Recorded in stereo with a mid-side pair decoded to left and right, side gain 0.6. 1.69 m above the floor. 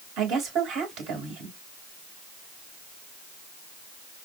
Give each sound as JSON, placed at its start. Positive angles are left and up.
{"t": 0.2, "sound": "a woman speaking", "azimuth_deg": -65, "distance_m": 3.0}